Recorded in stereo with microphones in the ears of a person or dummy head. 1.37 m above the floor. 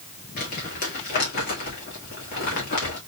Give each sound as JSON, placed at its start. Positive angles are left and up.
{"t": 0.4, "sound": "crumpling", "side_deg": 55, "distance_m": 1.7}